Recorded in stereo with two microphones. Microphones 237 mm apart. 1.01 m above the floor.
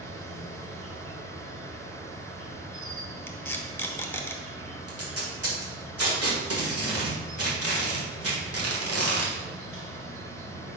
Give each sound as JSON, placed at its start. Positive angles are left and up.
{"t": 0.0, "sound": "an insect", "side_deg": -65, "distance_m": 1.3}
{"t": 3.3, "sound": "tape being pulled", "side_deg": 10, "distance_m": 0.8}
{"t": 4.9, "sound": "tape being pulled", "side_deg": -80, "distance_m": 1.7}